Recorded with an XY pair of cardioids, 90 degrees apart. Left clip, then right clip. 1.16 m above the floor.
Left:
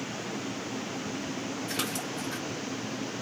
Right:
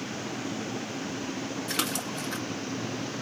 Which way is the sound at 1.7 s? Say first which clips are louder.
Right 3 dB; 55° right.